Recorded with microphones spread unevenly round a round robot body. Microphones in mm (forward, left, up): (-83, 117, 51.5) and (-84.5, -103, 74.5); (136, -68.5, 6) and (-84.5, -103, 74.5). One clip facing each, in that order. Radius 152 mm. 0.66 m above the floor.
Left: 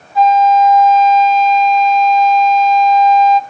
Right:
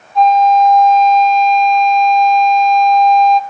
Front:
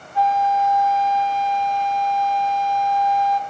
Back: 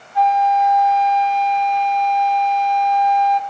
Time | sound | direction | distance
0.1 | a flute | 170° left | 0.5 m